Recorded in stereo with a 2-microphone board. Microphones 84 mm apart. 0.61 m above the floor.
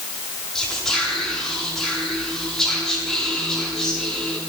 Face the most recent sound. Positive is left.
turn(degrees=5)  # may be behind; listen again after turning